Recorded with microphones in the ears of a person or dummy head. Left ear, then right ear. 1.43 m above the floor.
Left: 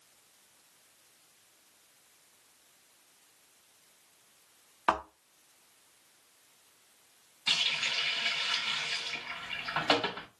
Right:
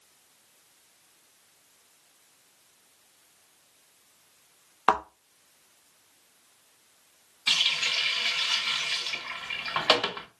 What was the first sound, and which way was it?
A thud, 15° right (ahead or behind).